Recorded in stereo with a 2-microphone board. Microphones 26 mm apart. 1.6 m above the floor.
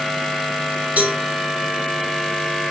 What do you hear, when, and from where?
1.0 s a cowbell: 85° right, 2 m